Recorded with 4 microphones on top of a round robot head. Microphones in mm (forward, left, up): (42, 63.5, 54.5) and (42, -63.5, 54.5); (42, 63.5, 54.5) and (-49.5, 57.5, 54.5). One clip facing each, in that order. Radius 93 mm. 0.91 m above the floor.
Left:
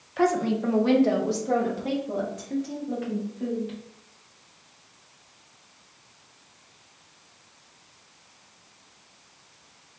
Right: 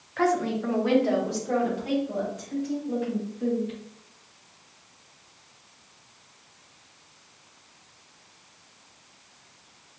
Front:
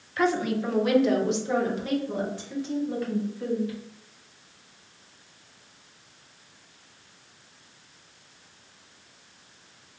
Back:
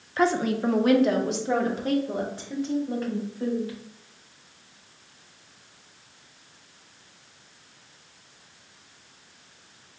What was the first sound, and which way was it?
A woman speaking, 155° left.